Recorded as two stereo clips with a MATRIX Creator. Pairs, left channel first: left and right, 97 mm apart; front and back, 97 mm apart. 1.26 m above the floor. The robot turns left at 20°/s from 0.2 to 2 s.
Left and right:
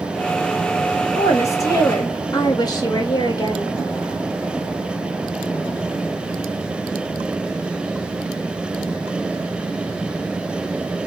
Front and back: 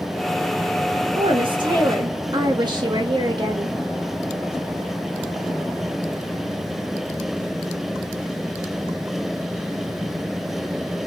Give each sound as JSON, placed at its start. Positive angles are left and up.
{"t": 1.1, "sound": "a woman speaking", "azimuth_deg": 155, "distance_m": 2.0}